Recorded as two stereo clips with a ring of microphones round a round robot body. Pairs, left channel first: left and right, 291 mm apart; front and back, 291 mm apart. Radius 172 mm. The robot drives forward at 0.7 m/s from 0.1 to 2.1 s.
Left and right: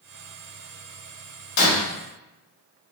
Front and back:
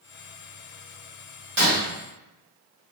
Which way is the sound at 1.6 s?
120° left.